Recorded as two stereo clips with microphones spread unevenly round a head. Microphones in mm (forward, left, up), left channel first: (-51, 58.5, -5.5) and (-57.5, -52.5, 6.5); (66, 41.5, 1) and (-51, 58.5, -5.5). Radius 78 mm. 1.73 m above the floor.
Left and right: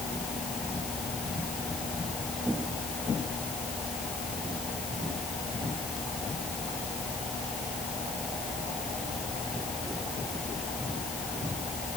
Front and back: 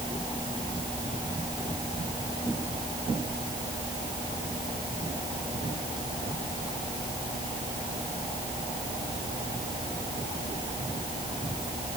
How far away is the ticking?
No ticking in this recording.